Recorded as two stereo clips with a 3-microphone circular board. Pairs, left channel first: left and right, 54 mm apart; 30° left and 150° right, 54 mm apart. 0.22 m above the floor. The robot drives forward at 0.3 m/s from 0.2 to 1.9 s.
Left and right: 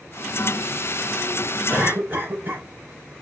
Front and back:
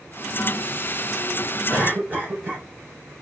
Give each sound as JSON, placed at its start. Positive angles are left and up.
{"t": 1.7, "sound": "a cough", "azimuth_deg": -105, "distance_m": 1.3}